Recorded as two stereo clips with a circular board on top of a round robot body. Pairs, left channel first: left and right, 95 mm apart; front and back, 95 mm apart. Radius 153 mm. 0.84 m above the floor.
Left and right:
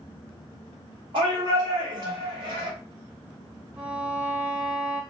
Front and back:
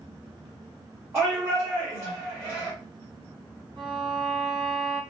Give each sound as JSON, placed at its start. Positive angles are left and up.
{"t": 1.1, "sound": "a shout", "azimuth_deg": -120, "distance_m": 1.9}
{"t": 3.8, "sound": "a violin", "azimuth_deg": -145, "distance_m": 2.5}